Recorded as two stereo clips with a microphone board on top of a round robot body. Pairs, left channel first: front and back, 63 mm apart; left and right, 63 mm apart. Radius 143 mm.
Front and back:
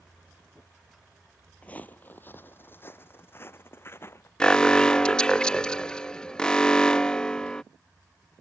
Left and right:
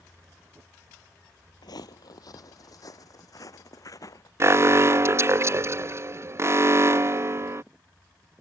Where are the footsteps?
70° left; by 4.3 s 55° left.